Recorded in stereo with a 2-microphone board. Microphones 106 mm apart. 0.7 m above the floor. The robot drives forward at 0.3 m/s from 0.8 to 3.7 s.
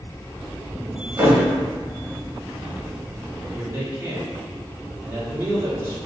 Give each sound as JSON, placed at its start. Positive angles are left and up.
{"t": 1.2, "sound": "a thud", "side_deg": -35, "distance_m": 0.9}
{"t": 3.5, "sound": "a man speaking", "side_deg": -25, "distance_m": 0.7}